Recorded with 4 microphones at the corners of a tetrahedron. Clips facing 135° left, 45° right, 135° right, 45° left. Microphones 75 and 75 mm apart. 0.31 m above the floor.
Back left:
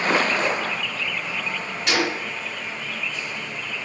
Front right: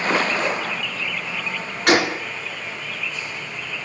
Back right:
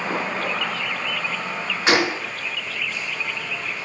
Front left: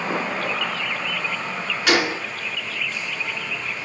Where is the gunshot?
75° right, 4 m.